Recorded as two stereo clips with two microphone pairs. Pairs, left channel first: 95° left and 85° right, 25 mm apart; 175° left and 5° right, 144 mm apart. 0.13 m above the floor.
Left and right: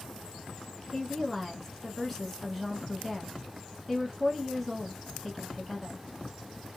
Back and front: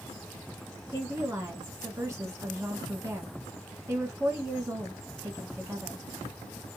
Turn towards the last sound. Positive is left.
turn(degrees=30)